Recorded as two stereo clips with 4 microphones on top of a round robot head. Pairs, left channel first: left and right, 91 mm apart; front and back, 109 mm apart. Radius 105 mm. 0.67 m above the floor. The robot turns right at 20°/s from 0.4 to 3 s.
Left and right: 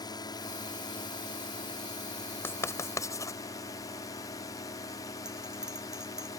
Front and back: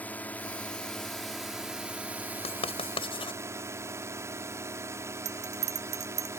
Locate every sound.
0.0 s a drone: 70° left; by 6.4 s 125° left
2.4 s writing: 25° left; by 3.4 s 35° left
5.2 s a bell: 175° right